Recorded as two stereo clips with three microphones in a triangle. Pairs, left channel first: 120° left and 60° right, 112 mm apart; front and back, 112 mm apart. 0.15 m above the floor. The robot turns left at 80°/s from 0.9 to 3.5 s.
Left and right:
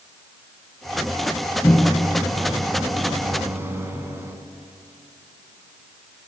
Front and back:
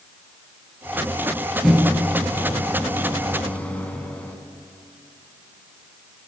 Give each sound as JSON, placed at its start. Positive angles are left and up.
{"t": 1.6, "sound": "a microwave", "azimuth_deg": 90, "distance_m": 0.8}